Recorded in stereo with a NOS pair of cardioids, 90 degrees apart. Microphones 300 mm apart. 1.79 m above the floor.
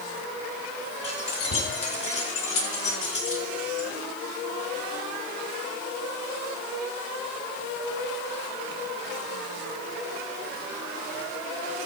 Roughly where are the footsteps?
I don't hear footsteps.